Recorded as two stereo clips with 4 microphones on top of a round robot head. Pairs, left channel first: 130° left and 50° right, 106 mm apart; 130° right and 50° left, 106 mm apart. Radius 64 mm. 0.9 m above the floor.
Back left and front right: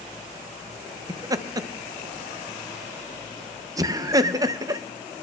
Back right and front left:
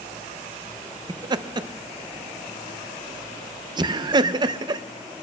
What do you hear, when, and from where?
1.1 s laughter: 5° left, 0.6 m